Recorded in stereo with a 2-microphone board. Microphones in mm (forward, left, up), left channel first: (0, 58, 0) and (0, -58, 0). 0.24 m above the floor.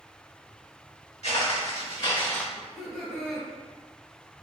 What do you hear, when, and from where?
1.2 s footsteps: 70° left (ahead or behind), 1.6 m; by 2.5 s 10° left (ahead or behind), 0.7 m
2.5 s laughter: centre (ahead or behind), 1.1 m